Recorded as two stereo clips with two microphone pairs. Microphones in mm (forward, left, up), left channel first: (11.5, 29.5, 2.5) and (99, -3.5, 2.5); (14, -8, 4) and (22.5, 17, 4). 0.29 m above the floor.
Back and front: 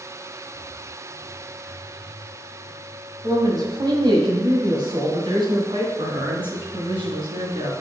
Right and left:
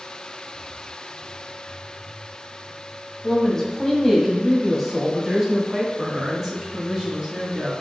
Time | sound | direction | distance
3.2 | a woman speaking | 40° right | 1.8 m